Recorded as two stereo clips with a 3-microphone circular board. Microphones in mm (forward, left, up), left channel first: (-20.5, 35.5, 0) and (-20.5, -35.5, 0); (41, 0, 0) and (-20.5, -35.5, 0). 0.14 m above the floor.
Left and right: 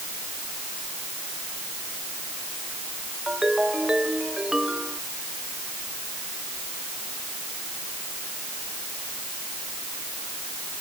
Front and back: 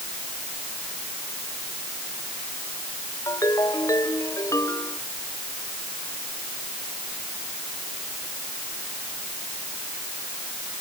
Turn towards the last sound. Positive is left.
turn(degrees=-10)